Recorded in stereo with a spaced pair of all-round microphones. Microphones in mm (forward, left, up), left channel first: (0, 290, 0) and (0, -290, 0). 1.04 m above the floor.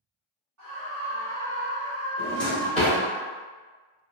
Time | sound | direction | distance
0.6 | a scream | 30° right (ahead or behind) | 1.1 m
2.2 | a drawer | centre (ahead or behind) | 1.5 m